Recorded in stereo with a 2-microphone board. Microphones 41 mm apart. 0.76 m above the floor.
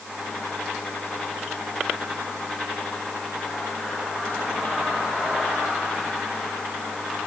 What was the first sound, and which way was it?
Only background noise.